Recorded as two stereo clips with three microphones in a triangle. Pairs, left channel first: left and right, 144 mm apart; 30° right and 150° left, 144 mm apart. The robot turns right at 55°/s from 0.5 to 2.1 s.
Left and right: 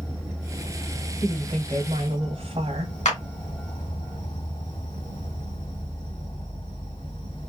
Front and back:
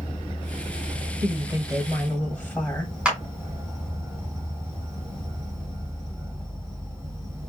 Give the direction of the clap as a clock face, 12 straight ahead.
10 o'clock.